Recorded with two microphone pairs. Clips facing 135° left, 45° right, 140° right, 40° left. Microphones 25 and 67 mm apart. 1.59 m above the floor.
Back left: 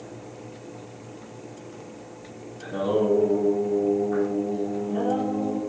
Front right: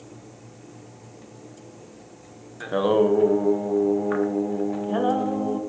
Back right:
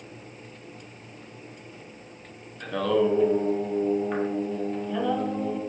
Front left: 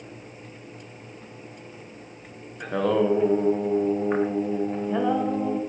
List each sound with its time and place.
2.6 s singing: 25° right, 1.0 m